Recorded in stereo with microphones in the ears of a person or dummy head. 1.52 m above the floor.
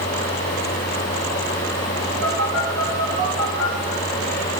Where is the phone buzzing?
75° right (ahead or behind), 3 m.